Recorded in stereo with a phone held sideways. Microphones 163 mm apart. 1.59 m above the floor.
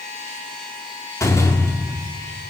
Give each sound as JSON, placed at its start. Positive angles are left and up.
{"t": 1.2, "sound": "a door slam", "side_deg": 15, "distance_m": 3.0}